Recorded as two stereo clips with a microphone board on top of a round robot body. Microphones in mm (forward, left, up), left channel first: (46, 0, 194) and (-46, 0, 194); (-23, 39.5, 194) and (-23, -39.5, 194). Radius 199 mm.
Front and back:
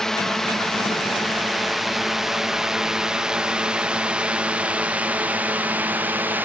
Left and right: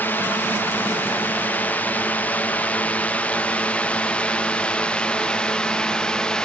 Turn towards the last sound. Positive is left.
turn(degrees=155)